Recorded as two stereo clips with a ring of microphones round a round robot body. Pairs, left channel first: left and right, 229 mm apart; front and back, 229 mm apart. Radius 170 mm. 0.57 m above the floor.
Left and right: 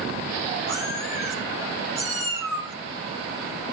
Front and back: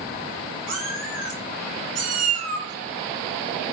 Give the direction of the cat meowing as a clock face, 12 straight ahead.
6 o'clock.